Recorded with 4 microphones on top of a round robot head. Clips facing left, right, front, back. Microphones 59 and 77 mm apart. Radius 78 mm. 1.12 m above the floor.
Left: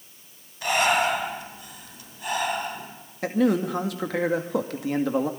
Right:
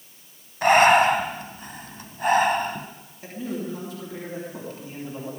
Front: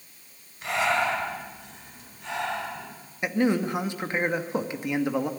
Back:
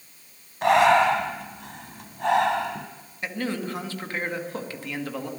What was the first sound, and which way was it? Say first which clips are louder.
Breathing: right 7 dB, back 8 dB; 135° right.